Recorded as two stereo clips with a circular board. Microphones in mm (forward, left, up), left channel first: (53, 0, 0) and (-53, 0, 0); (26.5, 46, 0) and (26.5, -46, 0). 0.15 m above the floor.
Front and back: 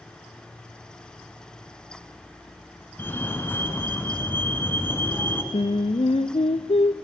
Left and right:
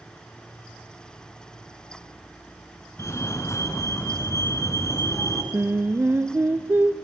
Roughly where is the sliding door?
No sliding door in this recording.